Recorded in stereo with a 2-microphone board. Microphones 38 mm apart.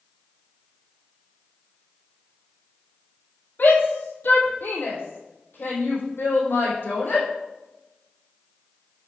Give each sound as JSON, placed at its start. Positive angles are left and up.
{"t": 3.6, "sound": "a shout", "side_deg": 55, "distance_m": 3.0}